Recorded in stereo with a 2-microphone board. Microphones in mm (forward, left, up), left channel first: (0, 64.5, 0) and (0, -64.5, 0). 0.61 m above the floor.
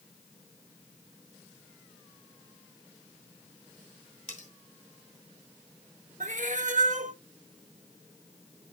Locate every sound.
4.3 s cutlery clinking: 85° left, 2.5 m
6.2 s a cat meowing: 80° right, 0.7 m